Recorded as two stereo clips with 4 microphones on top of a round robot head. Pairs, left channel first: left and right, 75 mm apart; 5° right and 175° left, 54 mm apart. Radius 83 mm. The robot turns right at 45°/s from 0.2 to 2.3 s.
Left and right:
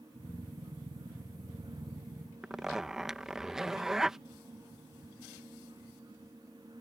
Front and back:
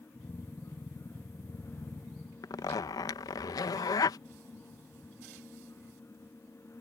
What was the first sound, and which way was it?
A zipper, 5° right.